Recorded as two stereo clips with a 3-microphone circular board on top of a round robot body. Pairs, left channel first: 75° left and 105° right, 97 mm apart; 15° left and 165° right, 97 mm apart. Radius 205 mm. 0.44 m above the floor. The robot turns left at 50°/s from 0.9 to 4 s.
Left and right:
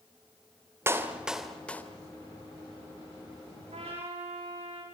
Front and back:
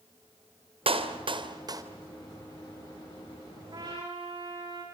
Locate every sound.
0.9 s a clap: 170° right, 2.5 m; by 1.8 s 145° left, 2.5 m
3.7 s a trumpet: 115° right, 9 m; by 4.8 s 130° right, 9 m